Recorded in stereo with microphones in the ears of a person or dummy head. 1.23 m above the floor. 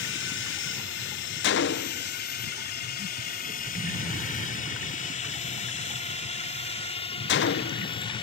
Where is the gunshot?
55° left (ahead or behind).